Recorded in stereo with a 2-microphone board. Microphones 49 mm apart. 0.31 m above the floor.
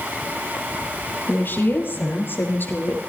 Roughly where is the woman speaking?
Left.